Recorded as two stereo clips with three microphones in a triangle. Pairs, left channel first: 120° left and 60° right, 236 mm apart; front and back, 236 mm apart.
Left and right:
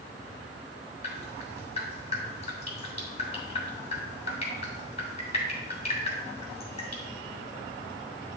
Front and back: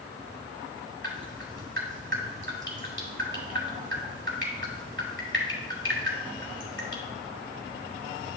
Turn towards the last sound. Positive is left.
turn(degrees=175)